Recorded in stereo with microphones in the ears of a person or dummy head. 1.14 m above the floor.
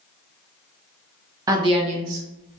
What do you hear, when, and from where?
1.5 s a woman speaking: 20° right (ahead or behind), 0.7 m; by 2.6 s 60° right (ahead or behind), 1.1 m